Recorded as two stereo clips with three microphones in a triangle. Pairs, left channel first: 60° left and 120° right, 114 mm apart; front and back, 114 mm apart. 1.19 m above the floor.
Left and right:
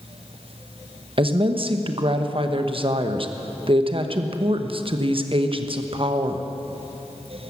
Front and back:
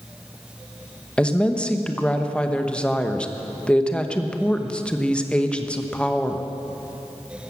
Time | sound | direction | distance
1.2 | a woman speaking | 80° right | 1.1 m